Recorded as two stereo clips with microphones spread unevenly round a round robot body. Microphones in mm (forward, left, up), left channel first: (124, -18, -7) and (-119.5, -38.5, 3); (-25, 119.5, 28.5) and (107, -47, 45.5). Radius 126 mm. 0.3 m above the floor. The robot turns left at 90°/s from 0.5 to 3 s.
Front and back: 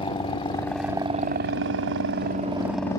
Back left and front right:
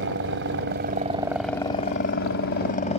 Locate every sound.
0.0 s a helicopter: 60° right; by 3.0 s 75° left